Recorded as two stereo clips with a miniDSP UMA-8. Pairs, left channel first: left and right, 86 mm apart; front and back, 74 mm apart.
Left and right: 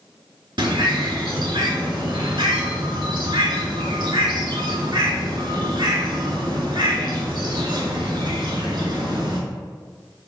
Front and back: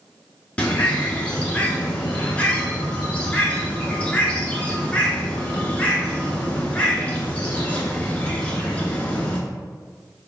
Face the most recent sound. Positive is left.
turn(degrees=-70)